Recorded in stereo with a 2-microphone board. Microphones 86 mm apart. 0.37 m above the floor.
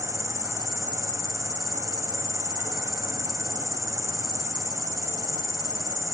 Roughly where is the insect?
Right.